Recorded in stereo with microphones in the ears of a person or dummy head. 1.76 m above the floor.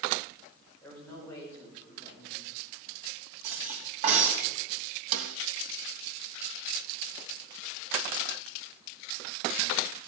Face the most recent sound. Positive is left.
turn(degrees=-75)  # may be behind; listen again after turning